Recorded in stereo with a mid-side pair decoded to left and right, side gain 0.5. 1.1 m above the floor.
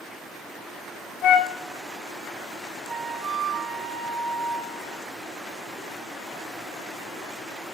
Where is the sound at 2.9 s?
40° right, 1.1 m.